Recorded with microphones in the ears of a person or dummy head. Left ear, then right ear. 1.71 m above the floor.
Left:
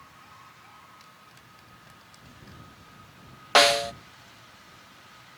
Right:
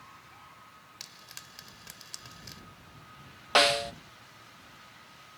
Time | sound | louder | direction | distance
1.0 | frying | right 4 dB | 50° right (ahead or behind) | ?
3.5 | a snare drum | left 4 dB | 15° left (ahead or behind) | ?